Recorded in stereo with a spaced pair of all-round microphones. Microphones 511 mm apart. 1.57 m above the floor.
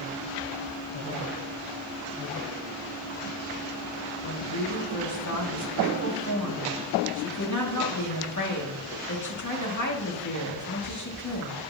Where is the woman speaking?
35° left (ahead or behind), 2 m.